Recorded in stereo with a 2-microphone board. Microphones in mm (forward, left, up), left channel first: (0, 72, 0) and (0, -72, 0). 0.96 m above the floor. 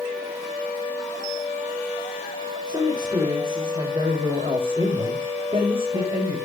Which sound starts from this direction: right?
A man speaking, at 2.7 s.